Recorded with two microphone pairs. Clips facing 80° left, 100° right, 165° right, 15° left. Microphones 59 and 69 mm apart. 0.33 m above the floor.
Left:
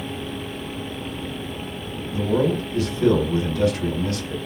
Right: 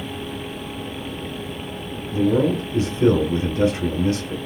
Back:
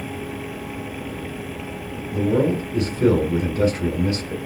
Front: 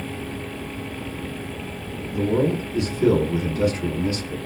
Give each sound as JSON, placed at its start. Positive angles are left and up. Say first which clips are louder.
{"t": 2.1, "sound": "a man speaking", "louder": "right 2 dB, back 2 dB", "azimuth_deg": -150, "distance_m": 1.6}